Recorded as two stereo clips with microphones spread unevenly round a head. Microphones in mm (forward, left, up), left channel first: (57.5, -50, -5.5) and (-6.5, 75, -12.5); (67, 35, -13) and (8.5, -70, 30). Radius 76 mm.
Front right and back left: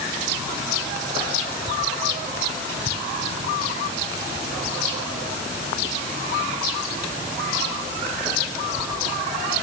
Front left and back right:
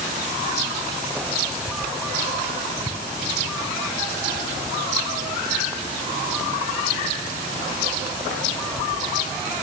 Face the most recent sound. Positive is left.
No sound to turn to.